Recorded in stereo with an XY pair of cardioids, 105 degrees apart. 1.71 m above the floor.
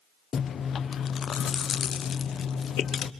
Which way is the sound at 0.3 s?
50° left.